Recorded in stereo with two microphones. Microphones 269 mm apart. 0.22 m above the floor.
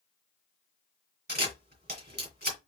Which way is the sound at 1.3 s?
35° right (ahead or behind).